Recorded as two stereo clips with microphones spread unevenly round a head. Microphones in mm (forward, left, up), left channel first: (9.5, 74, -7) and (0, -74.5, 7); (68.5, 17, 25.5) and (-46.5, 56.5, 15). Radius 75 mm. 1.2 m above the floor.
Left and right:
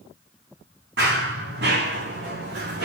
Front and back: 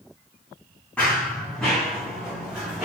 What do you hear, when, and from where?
1.0 s running footsteps: 100° right, 5 m; by 2.9 s 115° right, 5 m